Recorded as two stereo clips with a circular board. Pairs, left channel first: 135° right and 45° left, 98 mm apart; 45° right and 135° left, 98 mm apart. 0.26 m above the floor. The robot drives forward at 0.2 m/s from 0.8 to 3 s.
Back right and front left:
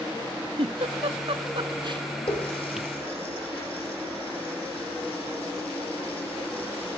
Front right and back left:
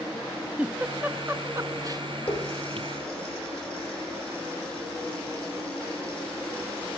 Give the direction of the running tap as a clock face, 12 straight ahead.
4 o'clock.